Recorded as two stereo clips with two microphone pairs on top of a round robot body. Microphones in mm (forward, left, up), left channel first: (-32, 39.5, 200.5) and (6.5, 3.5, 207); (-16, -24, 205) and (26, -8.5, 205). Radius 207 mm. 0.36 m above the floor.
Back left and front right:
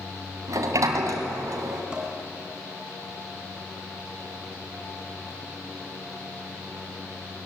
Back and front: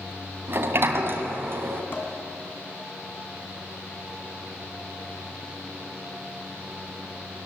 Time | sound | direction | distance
0.5 | a sliding door | 20° right | 1.7 m
1.9 | dishes clattering | 120° right | 3.5 m